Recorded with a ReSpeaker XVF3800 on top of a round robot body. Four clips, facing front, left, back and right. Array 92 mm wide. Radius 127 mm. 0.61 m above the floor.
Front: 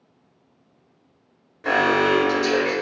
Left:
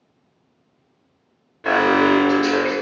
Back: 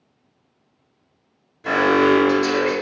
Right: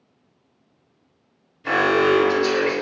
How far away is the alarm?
About 4.5 m.